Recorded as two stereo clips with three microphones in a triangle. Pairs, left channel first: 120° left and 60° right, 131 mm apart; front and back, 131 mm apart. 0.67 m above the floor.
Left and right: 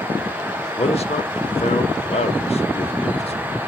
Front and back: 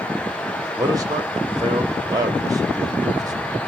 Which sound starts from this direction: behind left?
A man speaking, at 0.8 s.